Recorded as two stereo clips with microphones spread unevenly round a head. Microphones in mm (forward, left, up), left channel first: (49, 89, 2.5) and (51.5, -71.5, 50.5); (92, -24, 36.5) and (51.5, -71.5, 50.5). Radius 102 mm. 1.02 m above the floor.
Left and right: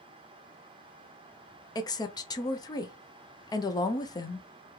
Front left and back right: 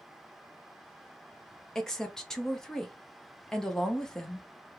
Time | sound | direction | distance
1.8 | a woman speaking | 110° left | 0.6 m